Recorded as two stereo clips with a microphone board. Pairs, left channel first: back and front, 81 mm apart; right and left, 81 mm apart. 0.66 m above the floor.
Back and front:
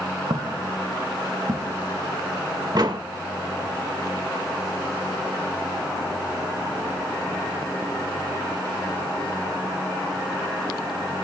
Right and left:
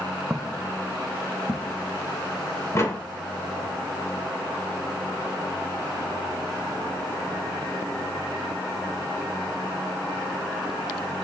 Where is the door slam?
35° right, 1.9 m.